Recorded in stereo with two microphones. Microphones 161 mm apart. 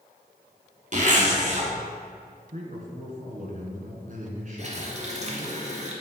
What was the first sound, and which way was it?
A zipper, 50° right (ahead or behind).